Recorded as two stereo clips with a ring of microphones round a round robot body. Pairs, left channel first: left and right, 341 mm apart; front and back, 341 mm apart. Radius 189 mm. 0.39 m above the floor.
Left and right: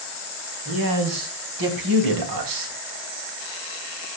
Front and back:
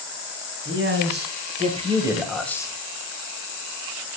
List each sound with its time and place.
0.7 s a man speaking: 130° right, 4 m; by 2.7 s 75° right, 2.5 m